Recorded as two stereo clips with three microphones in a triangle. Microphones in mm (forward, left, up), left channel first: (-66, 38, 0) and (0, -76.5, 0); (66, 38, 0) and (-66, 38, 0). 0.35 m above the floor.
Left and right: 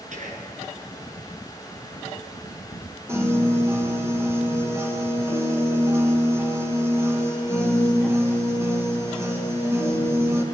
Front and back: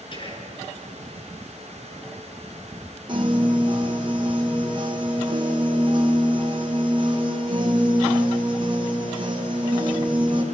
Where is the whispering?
45° right, 5 m.